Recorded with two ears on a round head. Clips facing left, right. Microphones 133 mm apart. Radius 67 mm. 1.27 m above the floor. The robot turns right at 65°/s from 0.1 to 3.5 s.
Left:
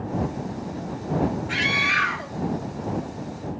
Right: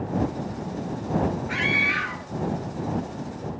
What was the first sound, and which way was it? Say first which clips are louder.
A scream: even; 35° left (ahead or behind).